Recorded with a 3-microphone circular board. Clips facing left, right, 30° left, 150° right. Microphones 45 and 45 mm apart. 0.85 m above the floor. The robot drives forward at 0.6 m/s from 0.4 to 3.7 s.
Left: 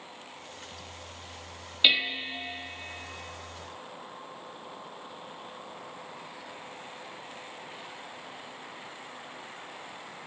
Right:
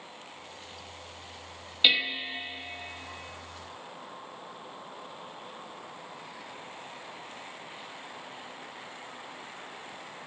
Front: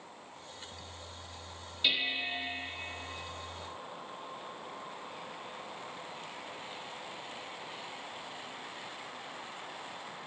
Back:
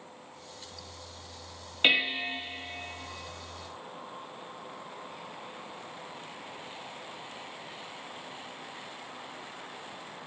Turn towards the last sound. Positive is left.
turn(degrees=180)